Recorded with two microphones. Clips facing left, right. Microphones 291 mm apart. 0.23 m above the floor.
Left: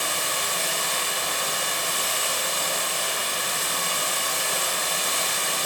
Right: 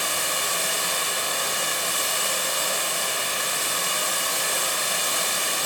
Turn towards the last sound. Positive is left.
turn(degrees=-30)  # may be behind; listen again after turning